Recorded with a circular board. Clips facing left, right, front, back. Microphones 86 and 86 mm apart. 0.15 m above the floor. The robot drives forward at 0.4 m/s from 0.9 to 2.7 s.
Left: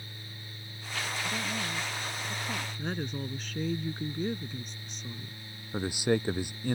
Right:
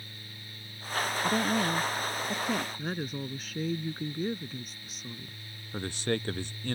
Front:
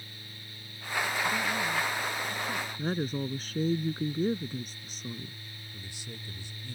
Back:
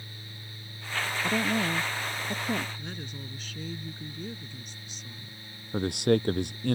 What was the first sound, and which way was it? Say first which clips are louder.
A woman speaking: right 7 dB, back 3 dB; 135° right.